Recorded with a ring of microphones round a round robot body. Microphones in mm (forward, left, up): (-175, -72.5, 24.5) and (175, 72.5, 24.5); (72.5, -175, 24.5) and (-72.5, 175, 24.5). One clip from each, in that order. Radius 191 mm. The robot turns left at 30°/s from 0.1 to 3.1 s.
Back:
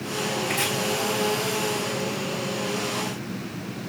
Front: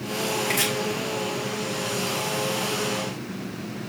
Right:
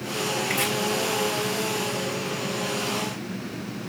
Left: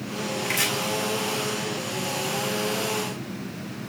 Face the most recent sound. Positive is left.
turn(degrees=-5)